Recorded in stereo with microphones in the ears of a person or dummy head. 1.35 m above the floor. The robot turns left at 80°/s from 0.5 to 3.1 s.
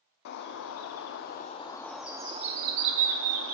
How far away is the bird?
About 0.7 m.